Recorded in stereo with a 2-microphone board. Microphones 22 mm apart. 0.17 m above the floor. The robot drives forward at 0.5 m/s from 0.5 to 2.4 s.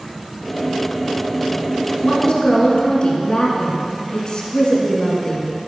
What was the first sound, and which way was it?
A woman speaking, 40° left (ahead or behind).